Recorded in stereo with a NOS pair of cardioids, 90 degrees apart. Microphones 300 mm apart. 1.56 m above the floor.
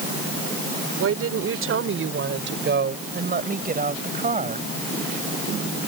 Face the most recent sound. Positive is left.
turn(degrees=-25)